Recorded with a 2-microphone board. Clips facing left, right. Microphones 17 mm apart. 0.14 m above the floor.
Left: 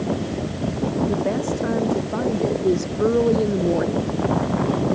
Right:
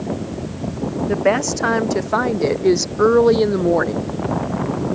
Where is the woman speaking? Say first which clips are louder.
Right 5 dB; 65° right (ahead or behind); by 4.1 s 50° right (ahead or behind).